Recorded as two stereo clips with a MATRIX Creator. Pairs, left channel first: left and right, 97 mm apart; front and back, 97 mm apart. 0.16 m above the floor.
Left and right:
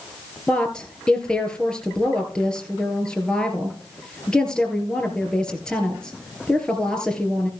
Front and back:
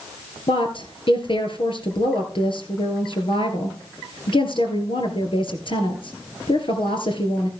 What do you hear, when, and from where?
0.5 s a woman speaking: 10° left, 2.5 m